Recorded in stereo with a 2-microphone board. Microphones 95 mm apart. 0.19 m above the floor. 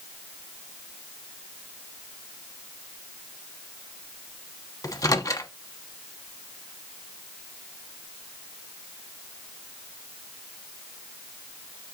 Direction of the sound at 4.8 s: 40° left (ahead or behind).